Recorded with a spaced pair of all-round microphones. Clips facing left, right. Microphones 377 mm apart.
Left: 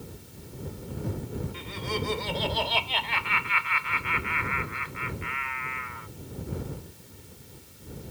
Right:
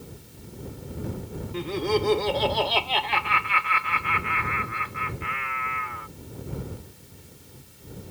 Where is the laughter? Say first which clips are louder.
Right 14 dB; 80° right.